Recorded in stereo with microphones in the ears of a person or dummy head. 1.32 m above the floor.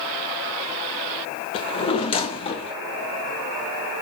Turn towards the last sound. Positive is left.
turn(degrees=30)  # may be behind; listen again after turning